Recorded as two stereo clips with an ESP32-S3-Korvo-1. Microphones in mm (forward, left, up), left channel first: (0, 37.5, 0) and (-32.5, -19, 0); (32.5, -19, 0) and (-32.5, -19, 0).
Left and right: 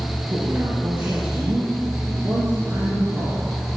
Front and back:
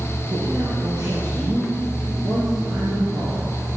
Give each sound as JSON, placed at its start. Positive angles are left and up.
{"t": 0.3, "sound": "a man speaking", "azimuth_deg": -160, "distance_m": 3.5}